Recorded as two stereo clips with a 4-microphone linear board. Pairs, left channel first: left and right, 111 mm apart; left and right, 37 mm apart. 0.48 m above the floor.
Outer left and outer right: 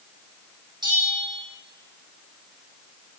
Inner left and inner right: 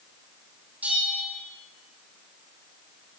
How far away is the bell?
About 4 m.